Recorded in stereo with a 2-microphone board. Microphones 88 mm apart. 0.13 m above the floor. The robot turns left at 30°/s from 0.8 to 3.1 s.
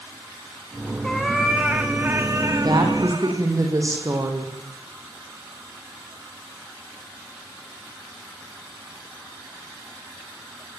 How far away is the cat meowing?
About 3 m.